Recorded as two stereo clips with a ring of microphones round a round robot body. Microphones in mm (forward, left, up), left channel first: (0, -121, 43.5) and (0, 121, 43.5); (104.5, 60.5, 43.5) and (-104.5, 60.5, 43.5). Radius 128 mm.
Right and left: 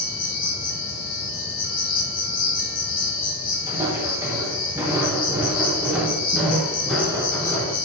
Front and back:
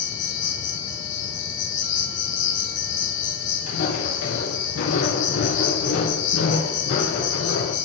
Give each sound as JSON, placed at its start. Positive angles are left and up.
{"t": 0.0, "sound": "an insect", "azimuth_deg": -35, "distance_m": 4.0}
{"t": 3.7, "sound": "footsteps", "azimuth_deg": 15, "distance_m": 6.5}